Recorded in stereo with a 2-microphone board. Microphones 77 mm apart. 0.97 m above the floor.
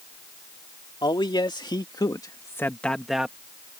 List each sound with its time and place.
1.0 s a man speaking: 75° left (ahead or behind); by 3.4 s 15° right (ahead or behind)